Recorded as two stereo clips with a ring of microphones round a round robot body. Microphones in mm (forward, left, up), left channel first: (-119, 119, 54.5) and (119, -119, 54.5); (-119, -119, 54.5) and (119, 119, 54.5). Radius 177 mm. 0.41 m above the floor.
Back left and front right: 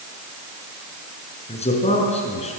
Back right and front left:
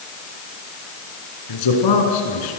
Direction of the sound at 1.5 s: 155° right.